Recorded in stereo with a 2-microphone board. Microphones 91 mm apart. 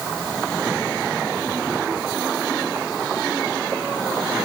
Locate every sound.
Only background noise.